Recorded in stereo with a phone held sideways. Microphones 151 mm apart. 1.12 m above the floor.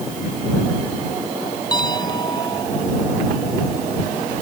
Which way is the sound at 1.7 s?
25° left (ahead or behind).